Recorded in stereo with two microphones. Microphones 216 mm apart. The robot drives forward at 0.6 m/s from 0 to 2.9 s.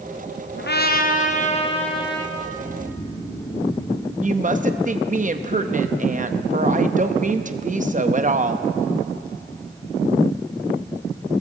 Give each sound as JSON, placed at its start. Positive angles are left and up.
{"t": 0.6, "sound": "a trumpet", "side_deg": 55, "distance_m": 0.6}
{"t": 2.4, "sound": "snoring", "side_deg": 15, "distance_m": 1.4}
{"t": 4.2, "sound": "a woman speaking", "side_deg": -35, "distance_m": 0.6}